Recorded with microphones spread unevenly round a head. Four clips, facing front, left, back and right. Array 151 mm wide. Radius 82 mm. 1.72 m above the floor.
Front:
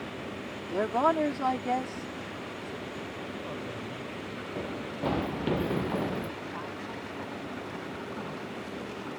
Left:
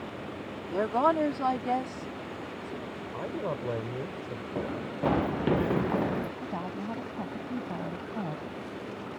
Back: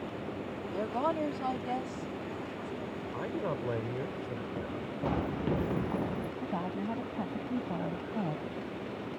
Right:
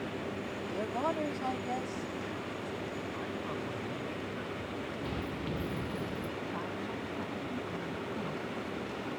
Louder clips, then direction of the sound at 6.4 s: Left 2 dB, back 3 dB; 155° left.